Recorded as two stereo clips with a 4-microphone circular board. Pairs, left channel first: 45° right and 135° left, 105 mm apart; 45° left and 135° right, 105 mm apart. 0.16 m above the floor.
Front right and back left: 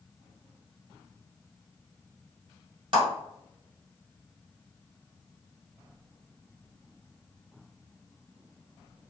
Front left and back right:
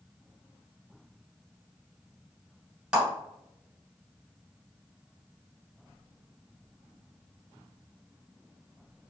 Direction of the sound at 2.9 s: 150° left.